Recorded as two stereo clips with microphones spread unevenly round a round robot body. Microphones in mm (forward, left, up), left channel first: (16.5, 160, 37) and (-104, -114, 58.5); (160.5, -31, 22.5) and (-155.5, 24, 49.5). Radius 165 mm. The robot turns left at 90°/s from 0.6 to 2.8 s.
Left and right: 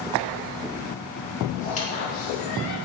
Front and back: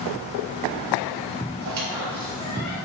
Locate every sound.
1.6 s a squeak: 150° left, 4 m; by 2.8 s 45° left, 4 m